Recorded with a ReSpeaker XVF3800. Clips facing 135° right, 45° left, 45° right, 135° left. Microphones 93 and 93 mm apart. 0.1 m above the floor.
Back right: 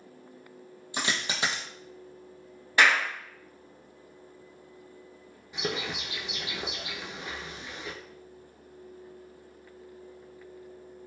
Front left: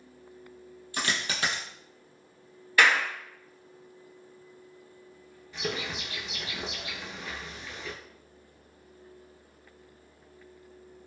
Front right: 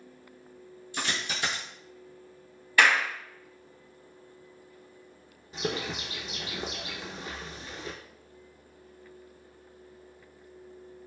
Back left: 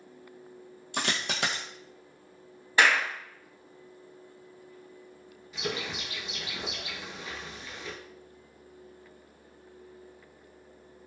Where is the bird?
70° right, 0.5 m.